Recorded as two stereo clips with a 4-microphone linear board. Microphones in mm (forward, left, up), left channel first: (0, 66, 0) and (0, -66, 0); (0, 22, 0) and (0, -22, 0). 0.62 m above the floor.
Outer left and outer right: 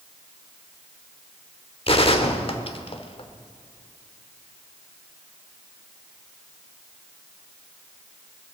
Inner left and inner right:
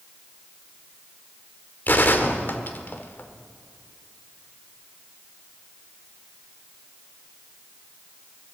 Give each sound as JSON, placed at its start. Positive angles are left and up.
{"t": 1.9, "sound": "a gunshot", "side_deg": 45, "distance_m": 1.2}